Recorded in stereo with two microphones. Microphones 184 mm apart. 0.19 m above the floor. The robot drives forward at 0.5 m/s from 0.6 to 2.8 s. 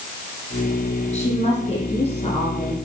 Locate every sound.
1.1 s a woman speaking: 35° left (ahead or behind), 5.5 m